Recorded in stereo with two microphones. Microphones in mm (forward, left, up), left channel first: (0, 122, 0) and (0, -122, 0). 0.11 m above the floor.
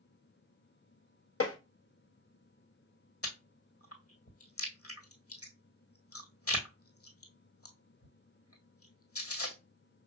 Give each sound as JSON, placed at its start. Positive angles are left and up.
{"t": 1.4, "sound": "tapping", "side_deg": 65, "distance_m": 1.2}
{"t": 3.2, "sound": "chewing", "side_deg": 70, "distance_m": 1.4}